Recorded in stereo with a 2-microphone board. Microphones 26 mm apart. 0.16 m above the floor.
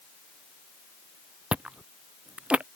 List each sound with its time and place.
1.5 s chewing: 45° right (ahead or behind)